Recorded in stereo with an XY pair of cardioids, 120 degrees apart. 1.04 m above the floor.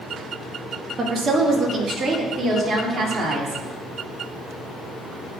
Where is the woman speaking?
35° right, 1.6 m.